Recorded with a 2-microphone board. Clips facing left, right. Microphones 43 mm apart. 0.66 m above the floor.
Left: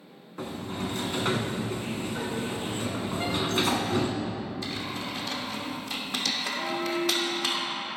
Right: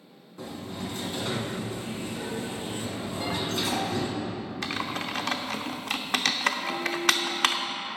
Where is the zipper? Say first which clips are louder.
Left 1 dB; 35° right (ahead or behind), 1.3 m.